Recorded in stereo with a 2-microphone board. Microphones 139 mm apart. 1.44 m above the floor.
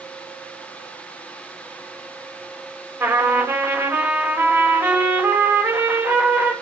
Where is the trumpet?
10° right (ahead or behind), 5.5 m.